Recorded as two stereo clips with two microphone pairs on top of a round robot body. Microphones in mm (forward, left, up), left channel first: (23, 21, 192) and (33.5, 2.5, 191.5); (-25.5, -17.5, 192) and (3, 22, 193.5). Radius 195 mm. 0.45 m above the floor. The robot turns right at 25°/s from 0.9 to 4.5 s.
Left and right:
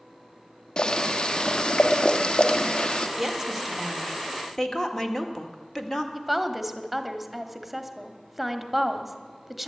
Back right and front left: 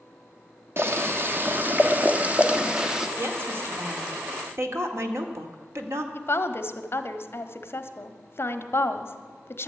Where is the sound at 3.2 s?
15° left, 2 m; by 6.0 s 50° left, 2 m.